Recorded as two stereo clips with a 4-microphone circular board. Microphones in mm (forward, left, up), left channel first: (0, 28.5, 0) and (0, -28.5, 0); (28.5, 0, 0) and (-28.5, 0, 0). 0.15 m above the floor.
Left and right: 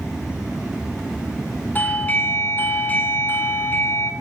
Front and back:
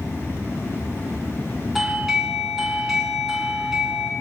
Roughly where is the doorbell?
Left.